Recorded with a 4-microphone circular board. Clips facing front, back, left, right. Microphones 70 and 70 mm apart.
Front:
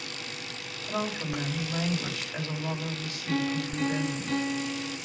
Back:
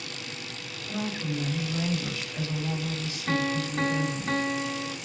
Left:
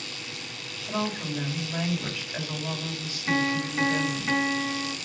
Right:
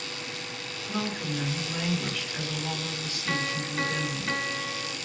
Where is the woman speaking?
20° left, 5.5 m.